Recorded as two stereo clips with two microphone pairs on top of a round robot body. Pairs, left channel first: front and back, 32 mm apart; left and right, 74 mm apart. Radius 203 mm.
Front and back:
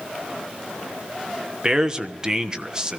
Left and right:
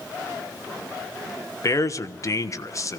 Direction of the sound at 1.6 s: 125° left.